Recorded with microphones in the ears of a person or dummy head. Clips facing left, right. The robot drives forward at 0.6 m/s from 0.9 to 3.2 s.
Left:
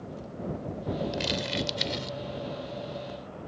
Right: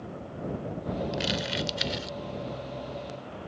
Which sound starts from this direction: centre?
Crumpling, at 1.1 s.